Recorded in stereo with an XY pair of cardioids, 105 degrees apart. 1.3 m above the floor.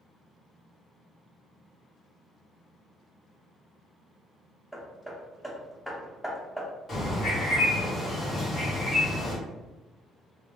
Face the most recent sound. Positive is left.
turn(degrees=40)